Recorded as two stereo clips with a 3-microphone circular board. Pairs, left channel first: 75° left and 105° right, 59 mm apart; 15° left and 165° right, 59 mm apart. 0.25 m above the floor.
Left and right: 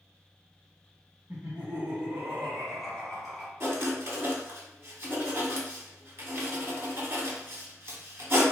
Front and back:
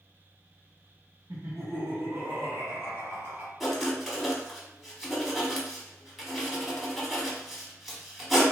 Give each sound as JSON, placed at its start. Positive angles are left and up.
{"t": 1.3, "sound": "laughter", "azimuth_deg": -145, "distance_m": 1.6}
{"t": 3.6, "sound": "writing", "azimuth_deg": -75, "distance_m": 0.8}